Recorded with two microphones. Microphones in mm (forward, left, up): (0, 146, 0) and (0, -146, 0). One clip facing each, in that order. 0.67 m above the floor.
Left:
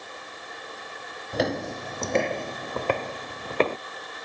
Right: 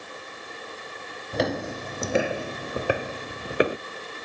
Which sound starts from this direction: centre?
Footsteps, at 1.3 s.